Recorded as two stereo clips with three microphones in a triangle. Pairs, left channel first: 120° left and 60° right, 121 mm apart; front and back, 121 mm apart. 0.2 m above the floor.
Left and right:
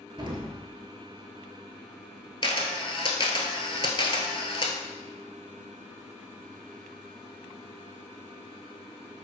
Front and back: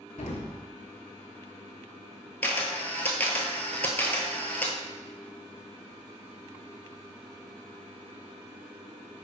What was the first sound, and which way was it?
An explosion, 10° right.